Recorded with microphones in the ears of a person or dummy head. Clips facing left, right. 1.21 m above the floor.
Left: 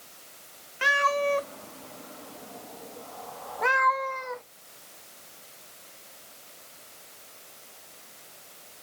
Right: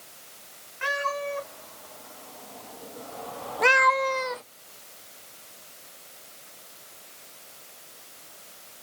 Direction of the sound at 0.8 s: 50° left (ahead or behind).